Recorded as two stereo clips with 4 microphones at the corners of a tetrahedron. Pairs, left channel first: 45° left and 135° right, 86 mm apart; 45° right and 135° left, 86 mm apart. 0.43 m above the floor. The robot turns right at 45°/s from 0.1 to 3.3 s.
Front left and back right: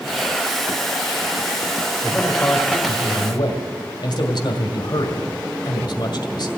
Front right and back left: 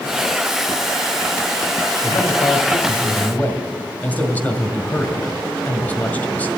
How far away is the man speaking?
About 1.9 m.